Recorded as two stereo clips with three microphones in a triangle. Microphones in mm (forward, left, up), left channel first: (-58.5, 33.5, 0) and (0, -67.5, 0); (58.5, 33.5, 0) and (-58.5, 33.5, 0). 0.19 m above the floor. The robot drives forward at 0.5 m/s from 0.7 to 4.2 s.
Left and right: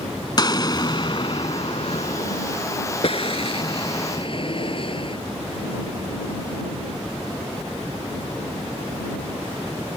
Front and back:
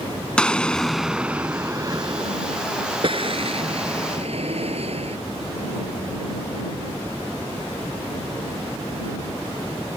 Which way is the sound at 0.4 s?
80° left.